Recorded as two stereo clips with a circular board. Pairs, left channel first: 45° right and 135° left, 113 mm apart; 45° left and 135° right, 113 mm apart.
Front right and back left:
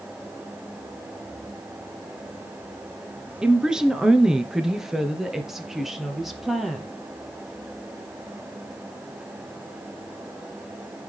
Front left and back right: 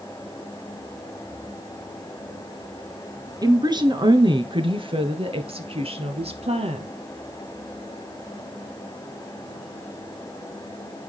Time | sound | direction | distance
3.4 | a woman speaking | 145° right | 2.0 m